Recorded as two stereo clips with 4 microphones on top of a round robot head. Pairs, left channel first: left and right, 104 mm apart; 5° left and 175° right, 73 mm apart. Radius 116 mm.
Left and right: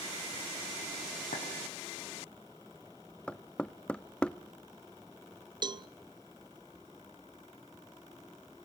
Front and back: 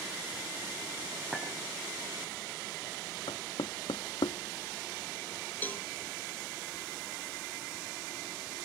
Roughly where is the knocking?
Ahead.